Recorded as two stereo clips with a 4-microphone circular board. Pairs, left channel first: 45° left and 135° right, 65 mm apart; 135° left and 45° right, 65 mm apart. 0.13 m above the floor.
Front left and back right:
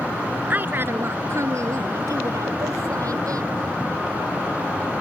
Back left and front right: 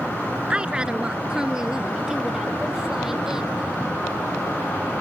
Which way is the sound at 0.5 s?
105° right.